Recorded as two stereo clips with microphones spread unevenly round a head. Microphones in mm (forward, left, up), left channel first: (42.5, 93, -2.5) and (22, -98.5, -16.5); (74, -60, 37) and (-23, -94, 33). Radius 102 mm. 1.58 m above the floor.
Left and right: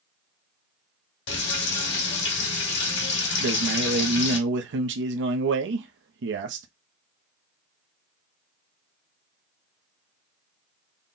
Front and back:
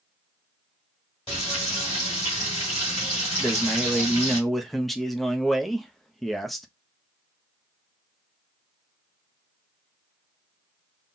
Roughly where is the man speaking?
Right.